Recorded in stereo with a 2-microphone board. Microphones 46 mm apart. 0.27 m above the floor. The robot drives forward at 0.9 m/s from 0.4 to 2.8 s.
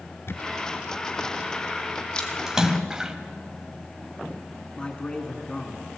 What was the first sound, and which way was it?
A camera shutter, 65° left (ahead or behind).